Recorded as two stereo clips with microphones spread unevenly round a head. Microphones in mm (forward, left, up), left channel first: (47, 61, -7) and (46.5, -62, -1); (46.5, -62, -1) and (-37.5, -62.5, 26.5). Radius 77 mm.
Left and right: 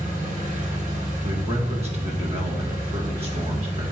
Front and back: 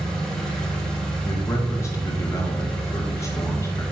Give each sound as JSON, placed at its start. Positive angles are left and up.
{"t": 0.0, "sound": "an engine running", "azimuth_deg": -90, "distance_m": 2.5}
{"t": 1.2, "sound": "a man speaking", "azimuth_deg": -50, "distance_m": 2.0}